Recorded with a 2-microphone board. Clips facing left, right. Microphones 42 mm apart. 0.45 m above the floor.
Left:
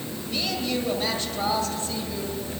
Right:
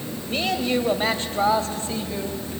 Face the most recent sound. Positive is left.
turn(degrees=-30)  # may be behind; listen again after turning